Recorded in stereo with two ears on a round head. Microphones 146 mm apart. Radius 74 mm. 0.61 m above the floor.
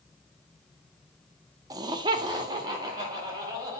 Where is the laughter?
20° right (ahead or behind), 0.7 m; by 3.8 s 25° right (ahead or behind), 3 m.